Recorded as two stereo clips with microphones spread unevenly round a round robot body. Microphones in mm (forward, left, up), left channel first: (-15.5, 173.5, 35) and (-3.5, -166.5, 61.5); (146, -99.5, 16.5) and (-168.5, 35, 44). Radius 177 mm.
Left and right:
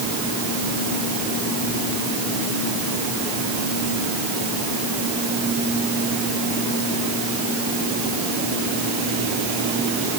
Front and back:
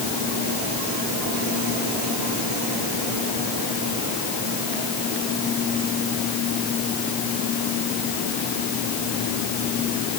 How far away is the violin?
I don't hear a violin.